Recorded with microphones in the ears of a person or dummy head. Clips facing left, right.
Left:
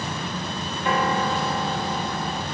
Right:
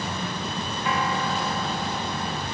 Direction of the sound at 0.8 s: 55° left (ahead or behind).